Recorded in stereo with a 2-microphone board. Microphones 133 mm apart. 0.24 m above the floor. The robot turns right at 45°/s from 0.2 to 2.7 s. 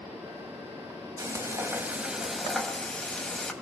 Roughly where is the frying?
Ahead right.